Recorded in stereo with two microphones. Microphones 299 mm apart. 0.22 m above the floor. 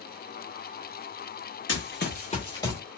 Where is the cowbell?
I don't hear a cowbell.